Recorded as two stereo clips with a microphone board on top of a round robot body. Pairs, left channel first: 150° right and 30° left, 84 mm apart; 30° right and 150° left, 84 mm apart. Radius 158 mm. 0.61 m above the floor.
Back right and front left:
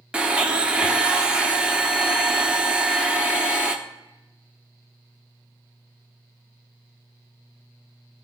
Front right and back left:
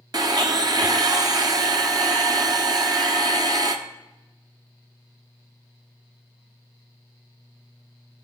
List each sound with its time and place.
0.1 s a blender: 105° left, 0.6 m